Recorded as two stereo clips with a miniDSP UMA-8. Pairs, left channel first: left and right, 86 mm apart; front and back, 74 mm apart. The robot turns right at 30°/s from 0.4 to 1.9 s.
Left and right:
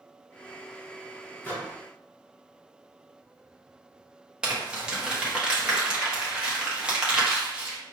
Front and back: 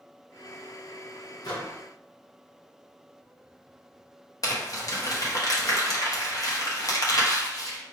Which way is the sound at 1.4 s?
20° left.